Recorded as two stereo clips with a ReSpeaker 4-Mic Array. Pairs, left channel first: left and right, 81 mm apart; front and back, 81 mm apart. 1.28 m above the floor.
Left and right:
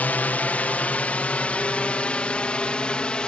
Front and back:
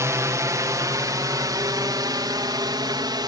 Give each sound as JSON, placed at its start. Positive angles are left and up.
{"t": 0.0, "sound": "a drone", "azimuth_deg": 150}